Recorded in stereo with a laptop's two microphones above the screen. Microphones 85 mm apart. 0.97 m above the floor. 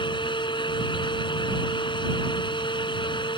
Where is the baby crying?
No baby crying in this recording.